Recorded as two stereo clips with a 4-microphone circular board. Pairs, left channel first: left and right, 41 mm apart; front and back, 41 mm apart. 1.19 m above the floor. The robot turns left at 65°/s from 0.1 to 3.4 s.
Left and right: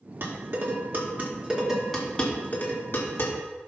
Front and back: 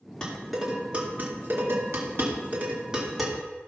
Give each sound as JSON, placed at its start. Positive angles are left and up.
{"t": 0.2, "sound": "dishes clattering", "azimuth_deg": -75, "distance_m": 2.0}